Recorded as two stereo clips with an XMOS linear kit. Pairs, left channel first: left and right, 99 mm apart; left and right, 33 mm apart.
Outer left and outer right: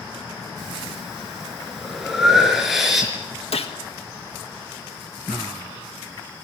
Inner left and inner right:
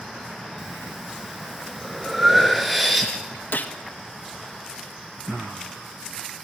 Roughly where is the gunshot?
Left.